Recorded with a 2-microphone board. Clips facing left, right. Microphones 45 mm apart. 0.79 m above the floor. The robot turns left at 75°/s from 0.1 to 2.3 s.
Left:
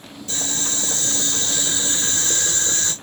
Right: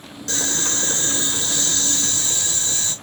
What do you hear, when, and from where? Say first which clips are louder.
0.3 s boiling: right 3 dB; 80° right, 2 m; by 2.9 s 125° left, 2 m